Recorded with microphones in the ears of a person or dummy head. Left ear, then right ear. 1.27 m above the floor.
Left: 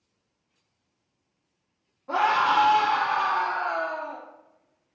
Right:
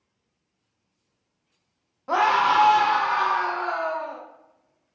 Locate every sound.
2.1 s a scream: 85° right, 0.6 m; by 4.2 s 80° right, 2.5 m